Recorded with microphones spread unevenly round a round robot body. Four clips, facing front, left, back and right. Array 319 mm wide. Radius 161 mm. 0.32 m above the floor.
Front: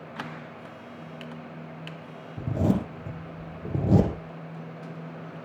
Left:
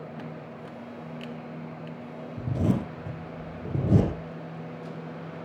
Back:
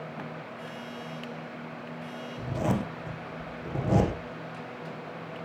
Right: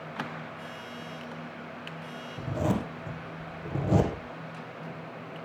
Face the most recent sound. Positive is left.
turn(degrees=40)